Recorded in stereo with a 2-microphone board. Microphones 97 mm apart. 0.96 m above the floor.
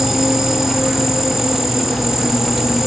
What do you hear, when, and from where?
0.0 s an insect: 5° right (ahead or behind), 1.5 m